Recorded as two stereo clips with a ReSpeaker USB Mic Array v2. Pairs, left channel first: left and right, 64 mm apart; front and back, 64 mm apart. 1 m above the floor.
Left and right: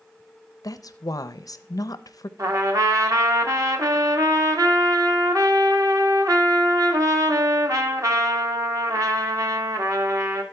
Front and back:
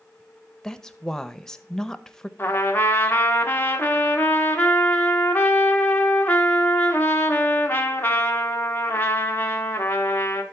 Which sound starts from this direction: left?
A woman speaking, at 0.6 s.